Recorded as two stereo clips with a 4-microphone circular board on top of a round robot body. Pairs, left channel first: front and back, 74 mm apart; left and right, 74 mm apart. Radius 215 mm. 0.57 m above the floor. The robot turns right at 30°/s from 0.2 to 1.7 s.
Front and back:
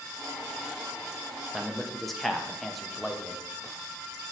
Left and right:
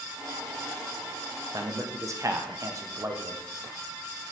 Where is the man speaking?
95° right, 0.8 m; by 3.4 s 90° right, 0.8 m.